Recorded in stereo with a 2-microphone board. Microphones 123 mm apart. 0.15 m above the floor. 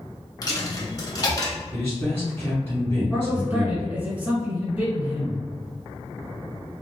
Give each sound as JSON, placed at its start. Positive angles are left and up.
{"t": 0.4, "sound": "a dropped coin", "side_deg": 35, "distance_m": 0.8}
{"t": 1.7, "sound": "a man speaking", "side_deg": 20, "distance_m": 1.3}
{"t": 3.1, "sound": "a man speaking", "side_deg": -15, "distance_m": 1.6}